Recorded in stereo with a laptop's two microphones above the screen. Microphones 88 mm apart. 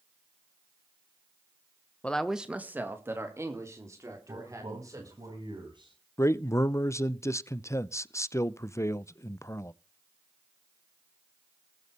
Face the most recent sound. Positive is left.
turn(degrees=35)  # may be behind; listen again after turning